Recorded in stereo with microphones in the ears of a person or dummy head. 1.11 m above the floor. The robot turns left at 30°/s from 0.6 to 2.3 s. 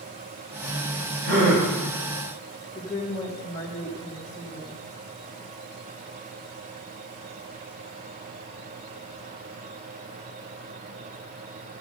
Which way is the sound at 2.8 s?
20° left (ahead or behind).